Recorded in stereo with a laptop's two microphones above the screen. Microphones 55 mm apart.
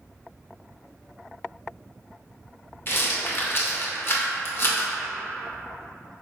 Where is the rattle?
45° left (ahead or behind), 0.6 m.